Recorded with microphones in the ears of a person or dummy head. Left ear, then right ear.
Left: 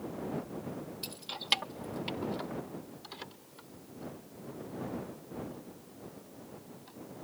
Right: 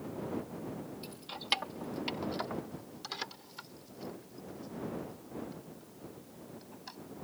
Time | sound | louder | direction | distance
1.0 | keys jangling | left 3 dB | 15° left (ahead or behind) | ?